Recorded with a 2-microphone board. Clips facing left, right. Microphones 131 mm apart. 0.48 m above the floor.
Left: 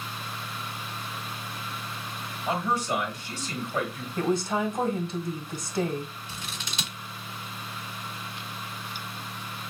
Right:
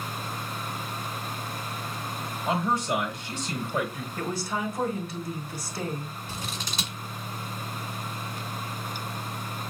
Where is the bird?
No bird in this recording.